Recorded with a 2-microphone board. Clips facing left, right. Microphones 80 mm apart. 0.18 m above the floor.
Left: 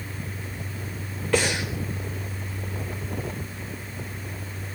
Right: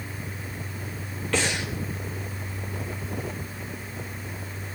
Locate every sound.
1.3 s breathing: 10° left (ahead or behind), 4.5 m